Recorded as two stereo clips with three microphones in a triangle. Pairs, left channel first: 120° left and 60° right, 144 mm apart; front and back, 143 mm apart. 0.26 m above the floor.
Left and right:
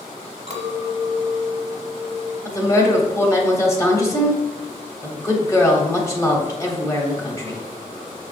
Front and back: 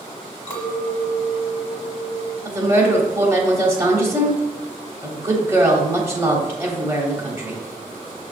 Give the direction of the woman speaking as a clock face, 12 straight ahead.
7 o'clock.